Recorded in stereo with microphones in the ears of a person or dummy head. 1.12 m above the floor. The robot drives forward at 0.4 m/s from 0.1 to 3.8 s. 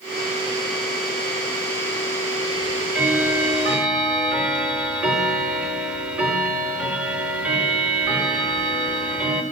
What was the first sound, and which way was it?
Ticking, 5° right (ahead or behind).